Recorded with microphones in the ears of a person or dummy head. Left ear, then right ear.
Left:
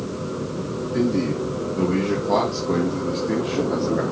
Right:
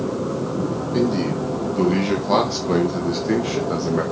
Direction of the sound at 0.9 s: 30° right (ahead or behind).